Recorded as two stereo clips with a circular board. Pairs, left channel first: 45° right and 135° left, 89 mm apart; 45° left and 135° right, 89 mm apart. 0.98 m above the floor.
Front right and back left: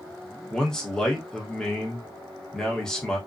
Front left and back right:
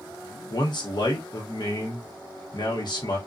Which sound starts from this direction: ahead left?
A man speaking, at 0.5 s.